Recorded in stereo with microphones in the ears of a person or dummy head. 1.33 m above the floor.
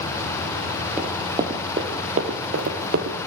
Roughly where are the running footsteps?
Centre.